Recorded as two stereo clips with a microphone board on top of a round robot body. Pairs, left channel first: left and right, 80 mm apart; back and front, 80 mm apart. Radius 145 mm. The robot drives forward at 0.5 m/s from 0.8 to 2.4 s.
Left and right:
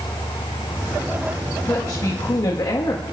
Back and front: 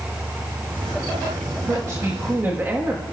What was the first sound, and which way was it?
A woman speaking, 45° left.